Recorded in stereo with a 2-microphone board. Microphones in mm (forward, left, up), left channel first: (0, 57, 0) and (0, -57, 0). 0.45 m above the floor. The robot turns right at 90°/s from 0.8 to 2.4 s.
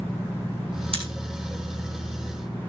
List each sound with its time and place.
0.9 s scissors: 60° right (ahead or behind), 6.5 m; by 1.1 s 70° right (ahead or behind), 6.5 m